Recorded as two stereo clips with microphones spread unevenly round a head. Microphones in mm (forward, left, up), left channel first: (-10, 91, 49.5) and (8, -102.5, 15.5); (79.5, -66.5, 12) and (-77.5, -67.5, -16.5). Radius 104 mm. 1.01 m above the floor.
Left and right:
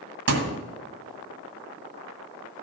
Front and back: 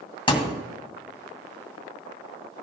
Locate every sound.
0.3 s a thud: 55° right, 2 m